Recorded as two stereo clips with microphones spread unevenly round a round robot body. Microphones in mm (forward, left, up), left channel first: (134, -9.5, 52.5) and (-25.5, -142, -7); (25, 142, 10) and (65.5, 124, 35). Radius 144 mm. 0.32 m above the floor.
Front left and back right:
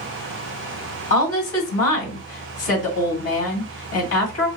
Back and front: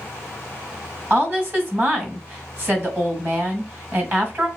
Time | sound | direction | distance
1.1 | a woman speaking | 40° left | 2.0 m